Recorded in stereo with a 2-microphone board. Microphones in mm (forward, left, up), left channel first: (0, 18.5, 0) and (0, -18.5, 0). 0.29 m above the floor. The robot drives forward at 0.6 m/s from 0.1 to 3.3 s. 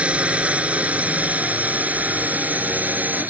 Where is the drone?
35° right (ahead or behind); by 3.3 s 55° right (ahead or behind).